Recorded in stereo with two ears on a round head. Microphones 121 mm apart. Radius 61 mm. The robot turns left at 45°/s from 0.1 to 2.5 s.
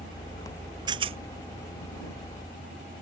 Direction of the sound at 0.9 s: 30° right (ahead or behind).